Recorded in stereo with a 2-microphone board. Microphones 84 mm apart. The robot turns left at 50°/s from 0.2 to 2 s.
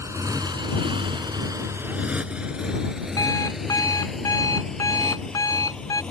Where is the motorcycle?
40° right (ahead or behind); by 6.1 s 10° left (ahead or behind).